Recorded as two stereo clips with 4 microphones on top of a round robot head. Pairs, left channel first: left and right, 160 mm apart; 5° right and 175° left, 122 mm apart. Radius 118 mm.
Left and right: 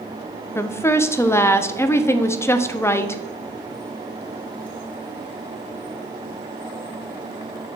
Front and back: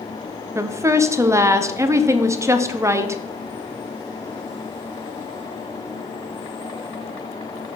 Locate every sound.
0.6 s a woman speaking: 145° left, 0.6 m